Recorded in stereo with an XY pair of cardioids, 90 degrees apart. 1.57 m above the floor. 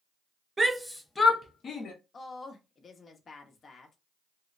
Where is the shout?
25° right, 0.8 m; by 1.9 s 65° left, 1.1 m.